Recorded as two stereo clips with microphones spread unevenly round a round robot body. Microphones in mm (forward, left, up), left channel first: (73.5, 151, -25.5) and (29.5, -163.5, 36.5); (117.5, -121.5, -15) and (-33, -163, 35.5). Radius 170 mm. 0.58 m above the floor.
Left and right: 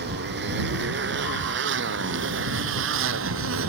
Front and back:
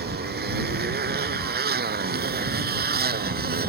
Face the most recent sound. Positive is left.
turn(degrees=-150)